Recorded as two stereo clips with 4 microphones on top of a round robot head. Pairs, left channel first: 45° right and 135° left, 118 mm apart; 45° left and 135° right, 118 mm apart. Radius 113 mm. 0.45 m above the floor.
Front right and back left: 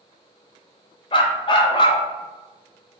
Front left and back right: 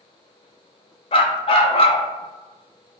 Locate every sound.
1.1 s a dog barking: 5° left, 0.6 m